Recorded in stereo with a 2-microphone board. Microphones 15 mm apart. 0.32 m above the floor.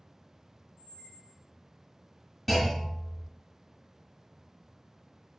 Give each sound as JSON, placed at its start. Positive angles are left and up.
{"t": 0.8, "sound": "a squeak", "side_deg": -35, "distance_m": 1.0}
{"t": 2.5, "sound": "a clunk", "side_deg": -5, "distance_m": 1.3}